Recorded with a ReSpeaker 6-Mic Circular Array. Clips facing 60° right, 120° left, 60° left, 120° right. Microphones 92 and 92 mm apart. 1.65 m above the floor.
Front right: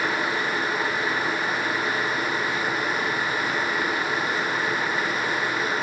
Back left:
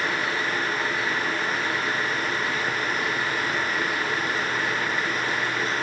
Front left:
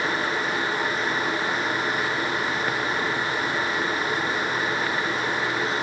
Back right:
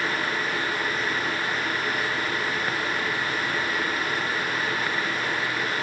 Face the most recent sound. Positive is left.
No sound to turn to.